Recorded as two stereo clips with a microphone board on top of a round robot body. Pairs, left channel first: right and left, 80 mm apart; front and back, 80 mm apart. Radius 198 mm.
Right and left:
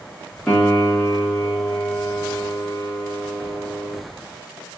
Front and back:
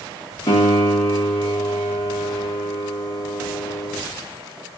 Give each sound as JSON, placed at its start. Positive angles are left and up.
{"t": 0.5, "sound": "a piano", "azimuth_deg": -10, "distance_m": 0.6}